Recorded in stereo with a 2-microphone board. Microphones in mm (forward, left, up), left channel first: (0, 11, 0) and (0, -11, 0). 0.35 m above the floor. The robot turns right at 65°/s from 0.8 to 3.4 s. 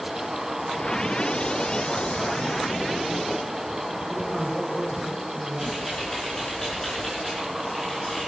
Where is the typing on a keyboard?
30° left (ahead or behind), 5.5 m.